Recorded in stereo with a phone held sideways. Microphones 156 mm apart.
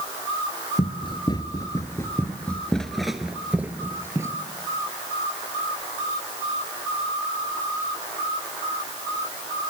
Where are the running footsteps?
35° left (ahead or behind), 1.7 m; by 4.3 s 20° right (ahead or behind), 1.8 m.